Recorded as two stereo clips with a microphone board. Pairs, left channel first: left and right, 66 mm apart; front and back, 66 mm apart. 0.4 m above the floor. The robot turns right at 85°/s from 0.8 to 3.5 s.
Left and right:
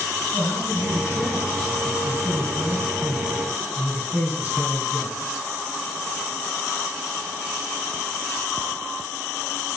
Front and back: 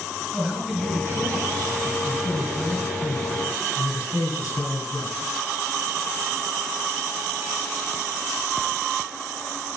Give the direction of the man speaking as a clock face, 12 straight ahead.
9 o'clock.